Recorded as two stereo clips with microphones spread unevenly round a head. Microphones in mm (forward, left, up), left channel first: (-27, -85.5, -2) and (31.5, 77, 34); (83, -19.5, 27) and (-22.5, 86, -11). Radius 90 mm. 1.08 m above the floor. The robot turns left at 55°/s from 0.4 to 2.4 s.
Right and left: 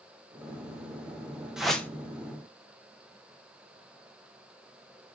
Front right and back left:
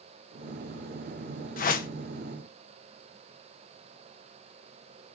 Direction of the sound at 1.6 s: 30° right.